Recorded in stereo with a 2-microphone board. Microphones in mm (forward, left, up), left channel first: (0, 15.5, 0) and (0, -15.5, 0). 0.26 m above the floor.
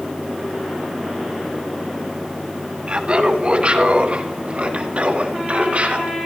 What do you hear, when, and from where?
2.9 s laughter: 35° right (ahead or behind), 2 m; by 6.2 s 50° right (ahead or behind), 4.5 m